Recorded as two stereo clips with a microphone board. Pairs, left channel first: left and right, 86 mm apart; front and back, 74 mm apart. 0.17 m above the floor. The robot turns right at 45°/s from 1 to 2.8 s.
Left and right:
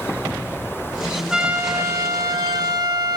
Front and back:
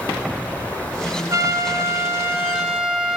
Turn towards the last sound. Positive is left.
turn(degrees=-100)